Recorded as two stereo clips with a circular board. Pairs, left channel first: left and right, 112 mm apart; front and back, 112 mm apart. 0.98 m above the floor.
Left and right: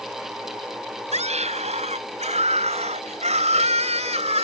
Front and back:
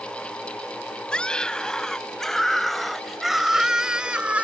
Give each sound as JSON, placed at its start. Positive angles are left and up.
{"t": 1.1, "sound": "a scream", "azimuth_deg": -80}